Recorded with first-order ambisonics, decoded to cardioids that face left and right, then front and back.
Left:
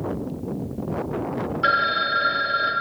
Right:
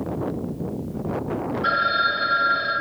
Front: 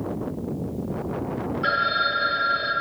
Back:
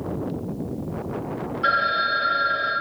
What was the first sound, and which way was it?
A phone ringing, 95° left.